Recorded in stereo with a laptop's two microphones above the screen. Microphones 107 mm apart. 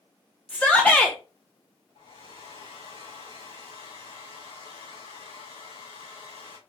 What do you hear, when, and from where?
0.5 s a shout: 15° left (ahead or behind), 0.6 m
1.9 s a hair dryer: 70° left (ahead or behind), 3 m